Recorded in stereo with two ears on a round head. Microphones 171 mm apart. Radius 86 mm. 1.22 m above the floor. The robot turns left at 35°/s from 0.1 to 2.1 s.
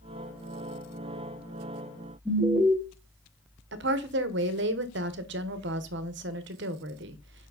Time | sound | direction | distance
2.2 | an alarm | 5° left (ahead or behind) | 2 m
3.7 | a woman speaking | 60° right (ahead or behind) | 0.9 m